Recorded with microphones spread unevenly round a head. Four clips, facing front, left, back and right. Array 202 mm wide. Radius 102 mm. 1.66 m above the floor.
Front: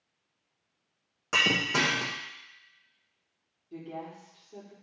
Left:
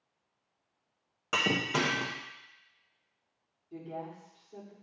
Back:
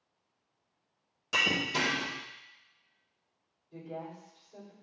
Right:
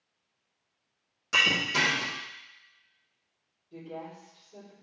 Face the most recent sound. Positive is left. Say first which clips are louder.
# even, front 2 dB
turn(degrees=30)